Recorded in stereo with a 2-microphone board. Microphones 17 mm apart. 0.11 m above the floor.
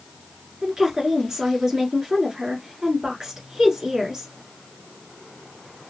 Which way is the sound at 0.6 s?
35° right (ahead or behind).